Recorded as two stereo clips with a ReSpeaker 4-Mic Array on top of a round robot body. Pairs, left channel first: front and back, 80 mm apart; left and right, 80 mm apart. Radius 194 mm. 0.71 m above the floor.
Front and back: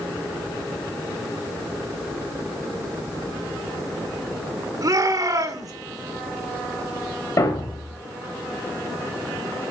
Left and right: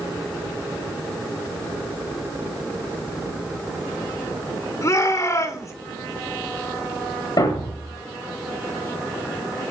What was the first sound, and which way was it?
A shout, 140° left.